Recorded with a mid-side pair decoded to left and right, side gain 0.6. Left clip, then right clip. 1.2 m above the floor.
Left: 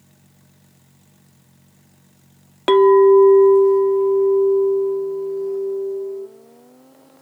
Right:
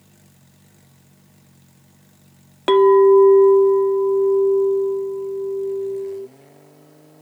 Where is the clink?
15° left, 0.7 m.